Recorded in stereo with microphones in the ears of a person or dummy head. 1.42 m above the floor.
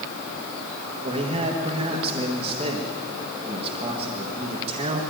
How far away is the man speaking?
About 1.7 m.